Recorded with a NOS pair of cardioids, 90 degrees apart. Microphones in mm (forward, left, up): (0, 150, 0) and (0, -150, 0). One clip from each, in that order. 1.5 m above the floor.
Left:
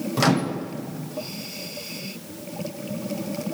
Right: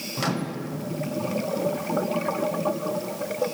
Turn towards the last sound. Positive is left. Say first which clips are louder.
# left 7 dB
turn(degrees=35)